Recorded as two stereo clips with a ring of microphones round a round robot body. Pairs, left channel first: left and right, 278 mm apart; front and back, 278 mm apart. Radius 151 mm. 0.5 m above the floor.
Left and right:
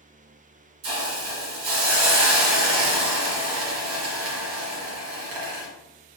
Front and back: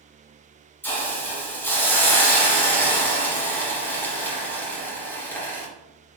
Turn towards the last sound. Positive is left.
turn(degrees=-85)